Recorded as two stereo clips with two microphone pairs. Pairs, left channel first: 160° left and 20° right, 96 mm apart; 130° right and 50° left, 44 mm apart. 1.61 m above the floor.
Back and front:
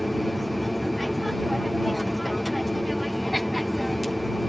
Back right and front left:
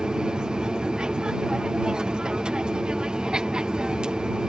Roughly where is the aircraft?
Left.